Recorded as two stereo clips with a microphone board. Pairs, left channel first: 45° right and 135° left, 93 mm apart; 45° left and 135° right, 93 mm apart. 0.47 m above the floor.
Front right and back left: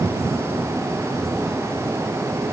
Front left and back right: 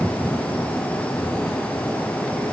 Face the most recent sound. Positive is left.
No sound to turn to.